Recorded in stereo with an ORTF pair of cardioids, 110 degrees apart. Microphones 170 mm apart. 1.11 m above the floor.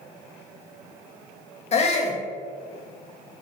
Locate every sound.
1.7 s a shout: 40° left, 1.3 m